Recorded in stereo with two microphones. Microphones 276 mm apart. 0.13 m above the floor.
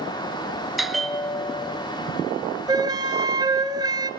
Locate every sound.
0.8 s a bell: centre (ahead or behind), 1.3 m
2.7 s a flute: 15° right (ahead or behind), 1.3 m